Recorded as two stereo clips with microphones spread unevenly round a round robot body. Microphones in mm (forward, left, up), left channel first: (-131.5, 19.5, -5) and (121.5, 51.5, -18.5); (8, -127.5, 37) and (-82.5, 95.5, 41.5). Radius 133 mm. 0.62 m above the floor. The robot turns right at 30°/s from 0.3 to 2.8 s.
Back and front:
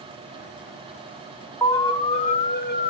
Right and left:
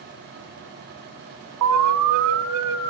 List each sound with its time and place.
1.6 s an alarm: 105° left, 1.0 m; by 2.9 s 140° left, 1.0 m